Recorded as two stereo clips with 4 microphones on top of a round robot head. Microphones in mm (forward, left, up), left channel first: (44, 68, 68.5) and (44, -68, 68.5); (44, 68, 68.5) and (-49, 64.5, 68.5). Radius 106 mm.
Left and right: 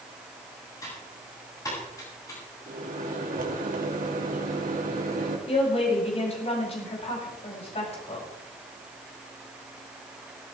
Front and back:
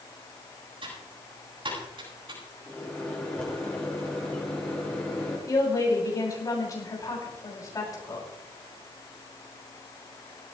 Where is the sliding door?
No sliding door in this recording.